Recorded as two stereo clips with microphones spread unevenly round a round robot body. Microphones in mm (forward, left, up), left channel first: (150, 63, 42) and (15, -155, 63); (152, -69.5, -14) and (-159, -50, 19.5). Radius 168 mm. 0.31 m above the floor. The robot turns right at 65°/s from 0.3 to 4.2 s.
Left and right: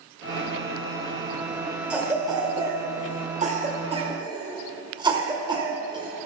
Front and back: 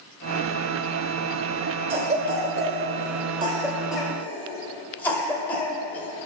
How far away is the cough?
About 1.2 m.